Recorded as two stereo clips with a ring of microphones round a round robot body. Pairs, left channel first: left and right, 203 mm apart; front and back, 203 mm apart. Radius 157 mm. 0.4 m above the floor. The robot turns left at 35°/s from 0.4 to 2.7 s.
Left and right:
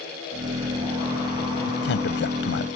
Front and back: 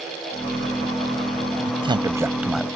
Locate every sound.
1.7 s a man speaking: 125° left; by 2.7 s 90° left